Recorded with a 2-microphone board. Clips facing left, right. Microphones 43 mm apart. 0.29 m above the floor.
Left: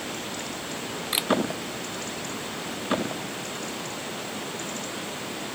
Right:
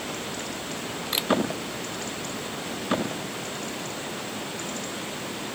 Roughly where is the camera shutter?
Centre.